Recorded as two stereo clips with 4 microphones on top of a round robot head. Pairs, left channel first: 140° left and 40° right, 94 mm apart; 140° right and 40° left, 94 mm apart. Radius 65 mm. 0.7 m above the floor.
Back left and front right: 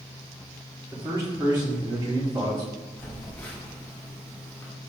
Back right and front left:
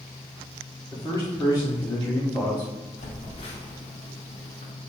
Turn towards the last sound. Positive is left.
turn(degrees=-145)